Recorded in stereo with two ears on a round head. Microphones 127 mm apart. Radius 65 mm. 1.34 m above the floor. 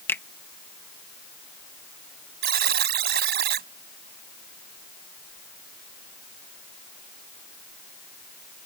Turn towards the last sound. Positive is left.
turn(degrees=-80)